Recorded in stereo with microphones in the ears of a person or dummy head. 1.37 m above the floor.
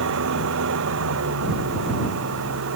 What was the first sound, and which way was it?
An engine running, 65° right (ahead or behind).